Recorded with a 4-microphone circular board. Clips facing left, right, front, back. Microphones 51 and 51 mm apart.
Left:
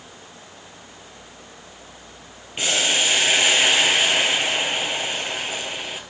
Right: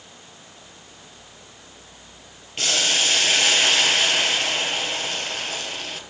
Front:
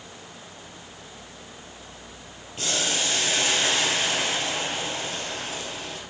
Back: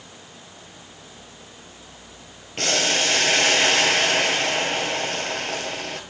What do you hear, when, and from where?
2.6 s boiling: 160° left, 0.9 m